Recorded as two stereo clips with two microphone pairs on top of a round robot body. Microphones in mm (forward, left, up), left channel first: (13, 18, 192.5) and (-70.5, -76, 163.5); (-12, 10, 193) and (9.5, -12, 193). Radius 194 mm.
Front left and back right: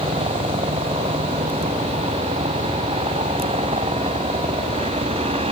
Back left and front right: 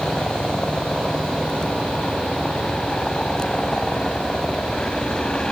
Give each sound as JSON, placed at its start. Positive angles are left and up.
{"t": 0.0, "sound": "a helicopter", "azimuth_deg": -165}